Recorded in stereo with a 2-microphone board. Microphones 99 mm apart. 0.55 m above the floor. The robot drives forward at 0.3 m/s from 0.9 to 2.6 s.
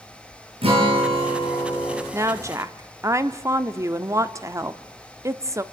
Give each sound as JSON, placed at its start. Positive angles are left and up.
{"t": 0.6, "sound": "a guitar", "side_deg": -75, "distance_m": 6.5}
{"t": 2.1, "sound": "a woman speaking", "side_deg": -30, "distance_m": 0.9}